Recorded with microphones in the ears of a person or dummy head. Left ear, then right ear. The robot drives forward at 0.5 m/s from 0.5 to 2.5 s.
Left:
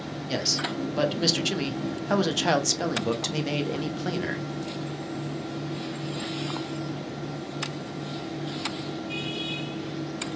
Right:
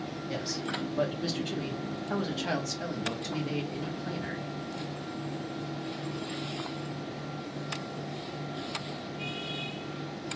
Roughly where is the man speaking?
Left.